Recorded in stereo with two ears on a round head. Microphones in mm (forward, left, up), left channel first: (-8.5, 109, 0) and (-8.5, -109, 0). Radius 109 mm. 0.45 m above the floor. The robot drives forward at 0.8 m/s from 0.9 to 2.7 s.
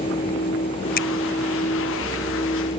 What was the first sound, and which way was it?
A finger snap, 40° left (ahead or behind).